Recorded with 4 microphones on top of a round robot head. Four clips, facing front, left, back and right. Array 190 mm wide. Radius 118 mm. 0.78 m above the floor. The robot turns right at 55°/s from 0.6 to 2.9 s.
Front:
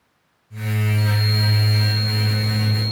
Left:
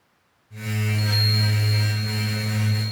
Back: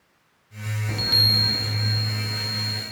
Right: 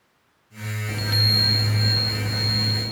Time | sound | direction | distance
0.9 | a chime | 150° right | 0.6 m